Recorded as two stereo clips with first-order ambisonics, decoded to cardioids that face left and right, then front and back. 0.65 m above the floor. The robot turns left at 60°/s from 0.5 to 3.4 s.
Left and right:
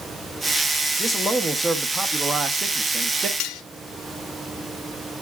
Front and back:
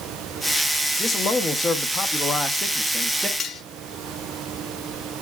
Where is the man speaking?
35° left, 0.8 m; by 3.3 s 105° right, 0.8 m.